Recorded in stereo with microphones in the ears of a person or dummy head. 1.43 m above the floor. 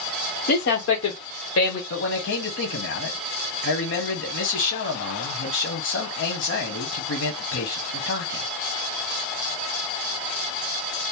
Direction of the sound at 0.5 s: 55° left (ahead or behind).